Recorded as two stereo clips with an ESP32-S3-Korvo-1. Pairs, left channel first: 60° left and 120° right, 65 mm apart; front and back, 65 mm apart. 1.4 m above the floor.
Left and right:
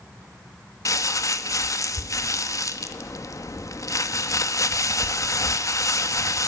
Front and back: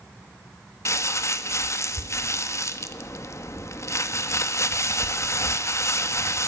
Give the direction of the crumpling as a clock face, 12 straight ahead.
11 o'clock.